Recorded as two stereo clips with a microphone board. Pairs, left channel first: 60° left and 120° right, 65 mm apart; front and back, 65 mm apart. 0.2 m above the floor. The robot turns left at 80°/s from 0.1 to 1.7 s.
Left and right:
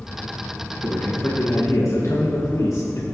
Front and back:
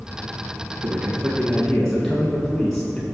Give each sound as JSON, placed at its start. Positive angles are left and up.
{"t": 0.8, "sound": "a man speaking", "azimuth_deg": 150, "distance_m": 1.6}